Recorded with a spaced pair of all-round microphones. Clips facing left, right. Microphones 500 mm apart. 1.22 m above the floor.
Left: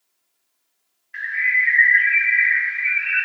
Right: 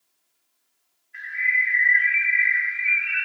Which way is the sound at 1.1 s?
80° left.